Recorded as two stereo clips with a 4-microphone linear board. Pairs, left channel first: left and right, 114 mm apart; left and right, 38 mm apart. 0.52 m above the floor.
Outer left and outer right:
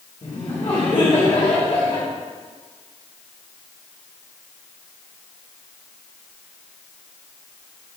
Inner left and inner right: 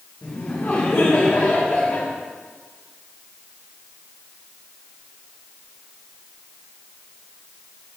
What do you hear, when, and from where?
0.2 s laughter: 55° left (ahead or behind), 1.6 m